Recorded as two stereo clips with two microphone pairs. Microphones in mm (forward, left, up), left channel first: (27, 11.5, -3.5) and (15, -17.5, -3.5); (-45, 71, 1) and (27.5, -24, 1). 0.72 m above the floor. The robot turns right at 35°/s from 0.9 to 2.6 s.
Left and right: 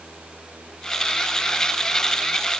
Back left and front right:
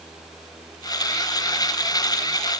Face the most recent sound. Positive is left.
No sound to turn to.